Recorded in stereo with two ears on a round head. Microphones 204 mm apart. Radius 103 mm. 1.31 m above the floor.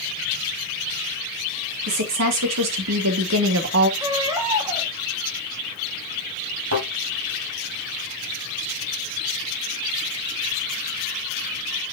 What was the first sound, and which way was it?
A woman speaking, 70° right (ahead or behind).